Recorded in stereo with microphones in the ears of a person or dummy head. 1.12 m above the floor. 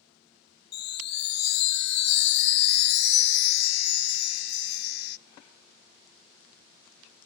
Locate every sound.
0.7 s a chime: 60° left (ahead or behind), 0.6 m